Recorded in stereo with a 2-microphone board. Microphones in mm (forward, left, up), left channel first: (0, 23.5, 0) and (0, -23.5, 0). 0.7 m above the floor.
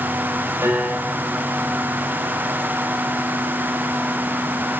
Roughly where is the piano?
Right.